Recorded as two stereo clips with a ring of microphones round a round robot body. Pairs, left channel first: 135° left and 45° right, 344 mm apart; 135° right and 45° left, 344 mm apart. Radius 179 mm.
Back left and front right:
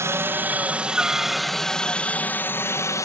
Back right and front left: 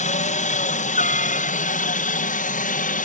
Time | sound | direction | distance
0.0 | a helicopter | 115° right | ?